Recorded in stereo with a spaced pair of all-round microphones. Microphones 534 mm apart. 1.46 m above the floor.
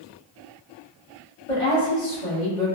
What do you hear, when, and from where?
1.5 s a woman speaking: 65° left (ahead or behind), 1.6 m